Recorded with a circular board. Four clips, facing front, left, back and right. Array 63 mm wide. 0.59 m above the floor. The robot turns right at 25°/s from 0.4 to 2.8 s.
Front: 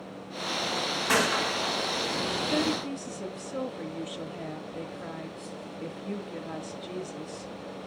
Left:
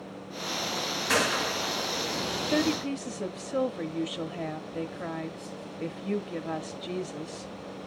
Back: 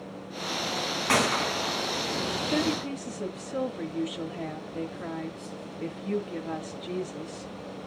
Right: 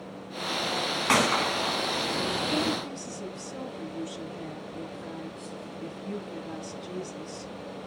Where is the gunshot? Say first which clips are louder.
Right 3 dB, back 1 dB; 105° right, 3 m; by 2.8 s 65° right, 3 m.